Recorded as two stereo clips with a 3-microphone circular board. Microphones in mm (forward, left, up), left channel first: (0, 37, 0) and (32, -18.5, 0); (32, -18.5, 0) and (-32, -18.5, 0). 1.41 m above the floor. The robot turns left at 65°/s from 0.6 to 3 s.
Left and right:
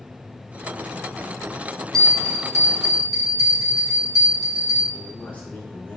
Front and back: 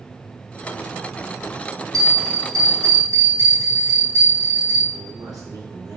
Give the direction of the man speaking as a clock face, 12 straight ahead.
6 o'clock.